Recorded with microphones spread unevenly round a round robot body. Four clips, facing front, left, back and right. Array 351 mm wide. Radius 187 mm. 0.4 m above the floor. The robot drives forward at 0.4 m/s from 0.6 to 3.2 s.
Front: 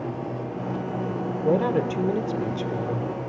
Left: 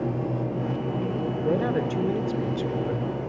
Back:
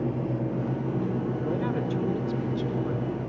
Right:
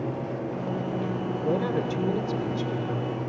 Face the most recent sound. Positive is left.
turn(degrees=15)